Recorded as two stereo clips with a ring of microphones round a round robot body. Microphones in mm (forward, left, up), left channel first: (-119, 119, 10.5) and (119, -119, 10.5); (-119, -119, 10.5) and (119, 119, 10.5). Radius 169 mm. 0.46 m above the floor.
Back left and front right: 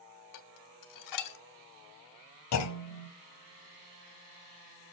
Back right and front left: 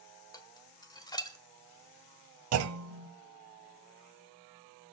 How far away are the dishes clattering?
About 1.2 m.